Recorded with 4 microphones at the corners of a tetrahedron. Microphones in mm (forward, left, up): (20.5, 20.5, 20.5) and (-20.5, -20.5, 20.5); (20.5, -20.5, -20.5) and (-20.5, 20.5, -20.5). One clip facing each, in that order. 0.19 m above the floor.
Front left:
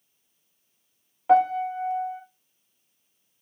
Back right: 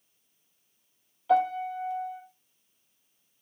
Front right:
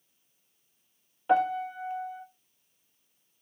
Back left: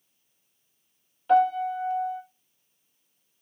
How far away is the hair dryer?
I don't hear a hair dryer.